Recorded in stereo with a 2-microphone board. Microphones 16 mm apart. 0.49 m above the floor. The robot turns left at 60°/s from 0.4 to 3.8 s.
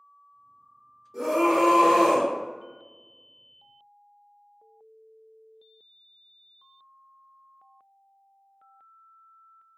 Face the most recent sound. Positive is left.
turn(degrees=-165)